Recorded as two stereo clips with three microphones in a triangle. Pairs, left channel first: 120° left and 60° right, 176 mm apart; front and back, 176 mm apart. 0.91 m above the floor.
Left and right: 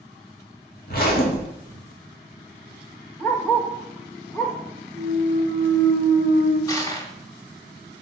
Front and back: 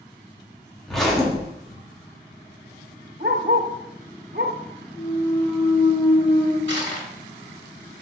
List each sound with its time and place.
0.9 s a zipper: 90° left, 1.6 m
3.2 s a dog barking: 160° right, 1.0 m
4.9 s a clunk: 65° left, 1.8 m
6.7 s crushing: 170° right, 1.5 m